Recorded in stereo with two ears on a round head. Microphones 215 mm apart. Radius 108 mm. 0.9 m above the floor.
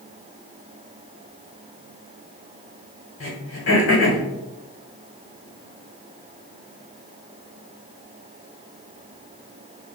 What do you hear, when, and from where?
3.2 s throat clearing: 60° left (ahead or behind), 1.1 m